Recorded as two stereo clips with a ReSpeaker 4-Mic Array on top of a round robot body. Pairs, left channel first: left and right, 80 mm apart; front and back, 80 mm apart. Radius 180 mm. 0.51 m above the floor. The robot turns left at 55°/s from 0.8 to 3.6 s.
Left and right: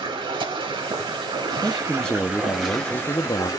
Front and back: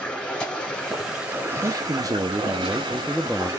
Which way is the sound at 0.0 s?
80° right.